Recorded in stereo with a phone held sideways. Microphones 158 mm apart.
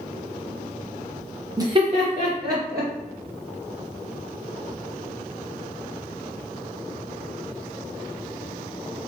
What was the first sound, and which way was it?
Laughter, 20° right (ahead or behind).